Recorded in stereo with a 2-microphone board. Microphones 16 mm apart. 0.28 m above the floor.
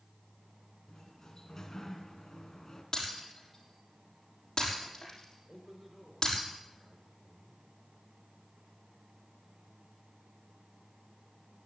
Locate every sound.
0.9 s a sliding door: 30° left (ahead or behind), 2 m
2.9 s breaking glass: 35° left (ahead or behind), 5.5 m
5.5 s a man speaking: 15° right (ahead or behind), 3.5 m